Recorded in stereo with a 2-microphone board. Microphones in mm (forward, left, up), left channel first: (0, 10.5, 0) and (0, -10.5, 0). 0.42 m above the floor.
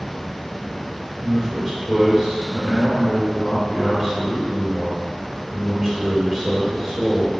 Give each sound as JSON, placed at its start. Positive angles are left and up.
{"t": 1.2, "sound": "a man speaking", "side_deg": -5, "distance_m": 1.4}